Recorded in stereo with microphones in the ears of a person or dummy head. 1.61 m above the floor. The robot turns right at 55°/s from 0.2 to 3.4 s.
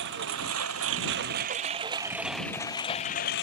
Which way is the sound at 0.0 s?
120° right.